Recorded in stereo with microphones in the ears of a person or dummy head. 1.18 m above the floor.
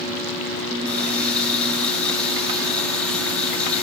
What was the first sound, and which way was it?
A running tap, 5° left (ahead or behind).